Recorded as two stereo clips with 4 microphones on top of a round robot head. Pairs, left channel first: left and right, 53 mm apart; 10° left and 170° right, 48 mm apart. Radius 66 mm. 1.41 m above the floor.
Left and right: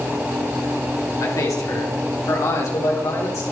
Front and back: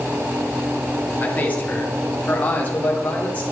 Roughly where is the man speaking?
Left.